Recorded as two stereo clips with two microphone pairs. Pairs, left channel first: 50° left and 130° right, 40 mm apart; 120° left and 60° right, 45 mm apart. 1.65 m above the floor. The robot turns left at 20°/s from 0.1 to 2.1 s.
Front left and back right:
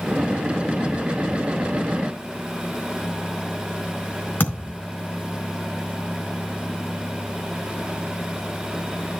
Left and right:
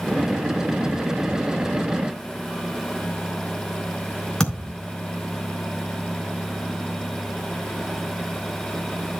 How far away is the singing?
I don't hear singing.